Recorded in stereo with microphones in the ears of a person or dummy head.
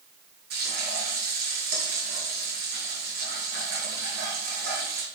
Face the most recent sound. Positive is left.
turn(degrees=-55)  # may be behind; listen again after turning